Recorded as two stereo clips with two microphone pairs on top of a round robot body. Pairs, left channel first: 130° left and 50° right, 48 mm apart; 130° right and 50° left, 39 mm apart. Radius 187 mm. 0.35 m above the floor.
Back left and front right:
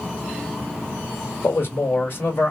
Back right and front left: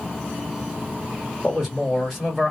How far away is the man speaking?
About 1.5 m.